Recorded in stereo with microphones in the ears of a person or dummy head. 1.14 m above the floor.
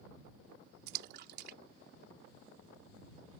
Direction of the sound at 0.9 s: 60° right (ahead or behind).